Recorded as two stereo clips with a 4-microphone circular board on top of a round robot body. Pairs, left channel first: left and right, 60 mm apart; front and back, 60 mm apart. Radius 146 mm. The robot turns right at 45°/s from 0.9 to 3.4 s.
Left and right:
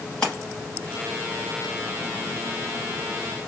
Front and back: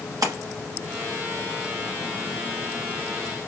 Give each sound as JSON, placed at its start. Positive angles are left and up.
{"t": 0.2, "sound": "a splash", "azimuth_deg": 170, "distance_m": 0.7}